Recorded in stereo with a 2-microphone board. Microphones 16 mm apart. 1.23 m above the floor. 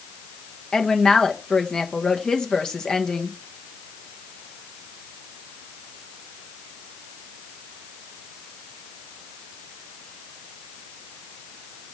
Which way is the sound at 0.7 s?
50° left (ahead or behind).